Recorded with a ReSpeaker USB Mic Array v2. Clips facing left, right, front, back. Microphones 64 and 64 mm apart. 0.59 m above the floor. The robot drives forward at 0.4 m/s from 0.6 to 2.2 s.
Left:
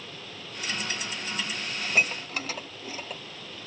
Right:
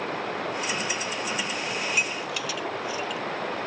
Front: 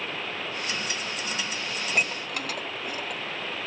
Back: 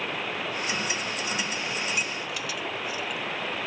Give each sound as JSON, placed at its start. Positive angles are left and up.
{"t": 0.0, "sound": "running water", "azimuth_deg": -105}
{"t": 1.8, "sound": "dishes clattering", "azimuth_deg": 40}